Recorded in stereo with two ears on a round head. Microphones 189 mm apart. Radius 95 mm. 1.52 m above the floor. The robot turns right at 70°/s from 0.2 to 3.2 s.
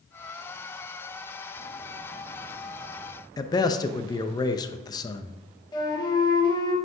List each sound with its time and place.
3.4 s a man speaking: 20° left (ahead or behind), 0.6 m
5.7 s a flute: 20° left (ahead or behind), 1.3 m